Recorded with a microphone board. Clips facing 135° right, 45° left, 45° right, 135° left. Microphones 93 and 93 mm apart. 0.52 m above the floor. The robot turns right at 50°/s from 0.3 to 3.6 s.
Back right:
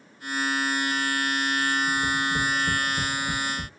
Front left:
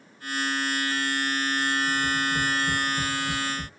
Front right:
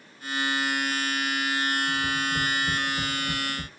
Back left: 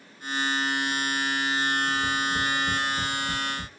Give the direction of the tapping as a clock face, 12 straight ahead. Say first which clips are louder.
Back right 1 dB, back left 1 dB; 6 o'clock.